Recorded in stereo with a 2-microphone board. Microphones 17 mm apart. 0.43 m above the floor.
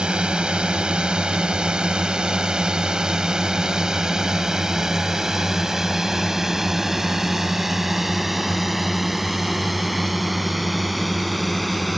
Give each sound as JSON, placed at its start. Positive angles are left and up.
{"t": 0.0, "sound": "a drone", "side_deg": -60}